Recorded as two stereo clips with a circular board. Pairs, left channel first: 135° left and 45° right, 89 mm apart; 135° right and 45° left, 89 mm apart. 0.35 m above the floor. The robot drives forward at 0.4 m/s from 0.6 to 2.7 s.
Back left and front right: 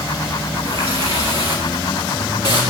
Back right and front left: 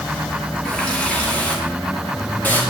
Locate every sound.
0.7 s a running tap: 55° right, 4 m; by 2.6 s 65° right, 3.5 m